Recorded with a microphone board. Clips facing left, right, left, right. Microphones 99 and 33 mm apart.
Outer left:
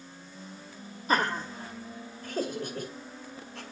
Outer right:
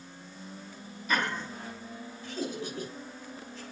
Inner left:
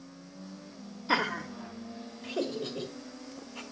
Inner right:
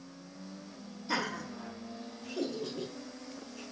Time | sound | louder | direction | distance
1.1 | laughter | outer left 4 dB, inner left 5 dB | 35° left (ahead or behind) | 1.7 m